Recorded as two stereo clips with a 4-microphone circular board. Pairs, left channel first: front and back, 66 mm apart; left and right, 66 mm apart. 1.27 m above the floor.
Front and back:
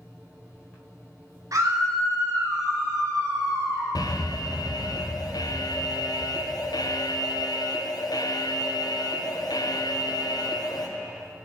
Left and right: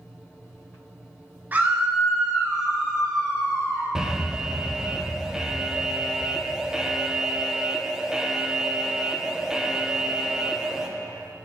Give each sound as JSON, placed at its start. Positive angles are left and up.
{"t": 1.5, "sound": "a scream", "azimuth_deg": -155, "distance_m": 1.8}
{"t": 4.0, "sound": "an alarm", "azimuth_deg": -10, "distance_m": 0.5}